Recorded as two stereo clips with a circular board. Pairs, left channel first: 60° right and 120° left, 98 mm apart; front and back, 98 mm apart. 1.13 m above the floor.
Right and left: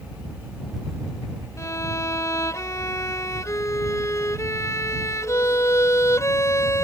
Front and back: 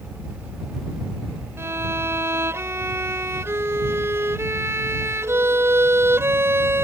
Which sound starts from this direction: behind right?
A violin, at 1.6 s.